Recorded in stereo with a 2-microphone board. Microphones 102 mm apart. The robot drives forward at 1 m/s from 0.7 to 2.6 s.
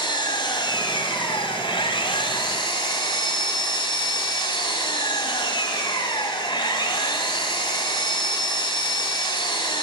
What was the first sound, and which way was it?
An engine running, 55° left (ahead or behind).